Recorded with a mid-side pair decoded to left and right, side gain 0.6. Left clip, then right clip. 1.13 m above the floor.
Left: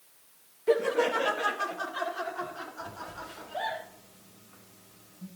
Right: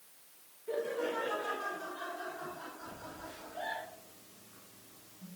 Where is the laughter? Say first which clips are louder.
Left 10 dB; 65° left, 1.2 m.